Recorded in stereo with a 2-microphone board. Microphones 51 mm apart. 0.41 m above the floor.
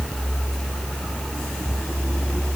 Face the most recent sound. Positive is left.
No sound to turn to.